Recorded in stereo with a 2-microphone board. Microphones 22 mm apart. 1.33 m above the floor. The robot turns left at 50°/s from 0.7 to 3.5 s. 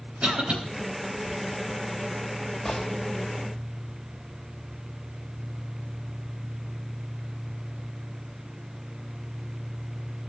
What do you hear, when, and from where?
0.2 s a cough: 70° right (ahead or behind), 3.5 m
2.6 s a gunshot: 45° left (ahead or behind), 3 m; by 2.9 s 35° left (ahead or behind), 3 m